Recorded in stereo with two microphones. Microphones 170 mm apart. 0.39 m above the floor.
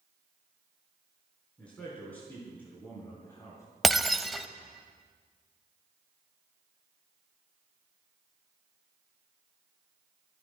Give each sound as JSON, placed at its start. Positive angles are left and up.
{"t": 1.6, "sound": "a man speaking", "side_deg": 5, "distance_m": 4.5}
{"t": 3.8, "sound": "breaking glass", "side_deg": 0, "distance_m": 0.6}